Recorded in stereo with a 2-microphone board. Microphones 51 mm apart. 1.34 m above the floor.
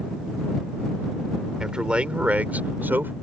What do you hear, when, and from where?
1.6 s a man speaking: 15° right (ahead or behind); by 3.1 s 45° right (ahead or behind)